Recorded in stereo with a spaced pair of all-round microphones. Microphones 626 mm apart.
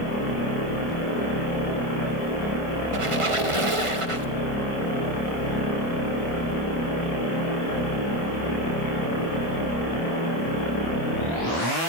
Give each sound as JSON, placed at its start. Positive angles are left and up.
{"t": 2.9, "sound": "a squeak", "side_deg": -55, "distance_m": 1.2}